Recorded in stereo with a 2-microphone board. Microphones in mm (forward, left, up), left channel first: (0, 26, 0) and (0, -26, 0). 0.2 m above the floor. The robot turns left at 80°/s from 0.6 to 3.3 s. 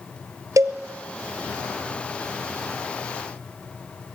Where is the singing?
I don't hear singing.